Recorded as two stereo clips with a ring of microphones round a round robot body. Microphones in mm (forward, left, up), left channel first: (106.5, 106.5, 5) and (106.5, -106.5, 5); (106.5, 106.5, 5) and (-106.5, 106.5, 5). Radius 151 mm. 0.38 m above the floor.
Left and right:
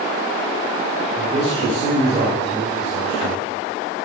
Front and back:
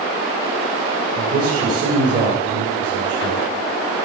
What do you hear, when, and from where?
1.2 s a man speaking: 140° right, 1.6 m